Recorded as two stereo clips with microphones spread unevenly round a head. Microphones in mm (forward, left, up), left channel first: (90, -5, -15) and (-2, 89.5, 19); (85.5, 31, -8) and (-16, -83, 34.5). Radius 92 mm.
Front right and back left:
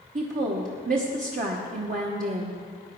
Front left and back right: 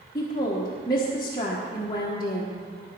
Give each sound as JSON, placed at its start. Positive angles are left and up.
{"t": 0.1, "sound": "a woman speaking", "azimuth_deg": 110, "distance_m": 1.1}